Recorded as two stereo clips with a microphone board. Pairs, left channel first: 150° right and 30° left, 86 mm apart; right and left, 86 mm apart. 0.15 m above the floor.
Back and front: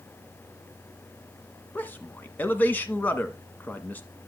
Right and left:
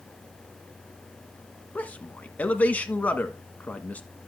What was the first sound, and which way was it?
A man speaking, 125° right.